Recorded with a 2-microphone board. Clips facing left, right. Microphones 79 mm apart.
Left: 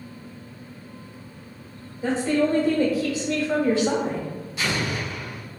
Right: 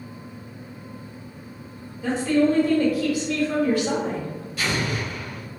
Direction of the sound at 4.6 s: 20° left (ahead or behind).